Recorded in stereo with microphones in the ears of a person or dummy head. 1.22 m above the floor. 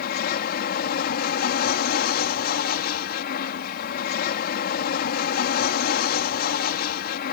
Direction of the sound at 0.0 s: 55° left (ahead or behind).